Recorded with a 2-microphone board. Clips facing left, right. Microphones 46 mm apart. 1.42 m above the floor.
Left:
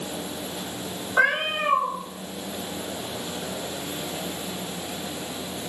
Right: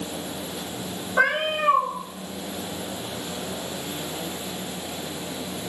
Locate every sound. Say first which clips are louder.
1.2 s a cat meowing: even; 25° left (ahead or behind), 1.5 m